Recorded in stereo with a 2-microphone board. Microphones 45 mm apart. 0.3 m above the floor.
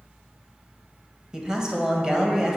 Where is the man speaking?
15° right (ahead or behind), 1.2 m.